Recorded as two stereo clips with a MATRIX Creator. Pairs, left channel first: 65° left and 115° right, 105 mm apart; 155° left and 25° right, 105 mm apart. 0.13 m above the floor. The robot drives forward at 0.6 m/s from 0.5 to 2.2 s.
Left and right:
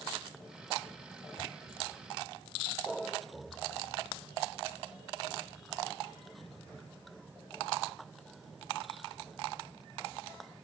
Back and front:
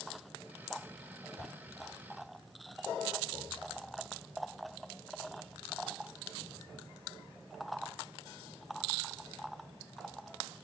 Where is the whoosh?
25° left, 3 m.